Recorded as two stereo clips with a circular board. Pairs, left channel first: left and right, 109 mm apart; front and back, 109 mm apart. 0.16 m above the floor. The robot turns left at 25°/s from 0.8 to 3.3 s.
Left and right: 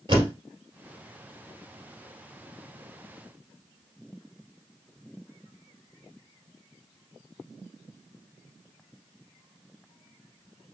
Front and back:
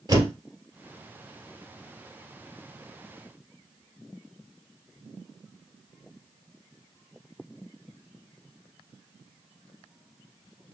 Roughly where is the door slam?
Behind right.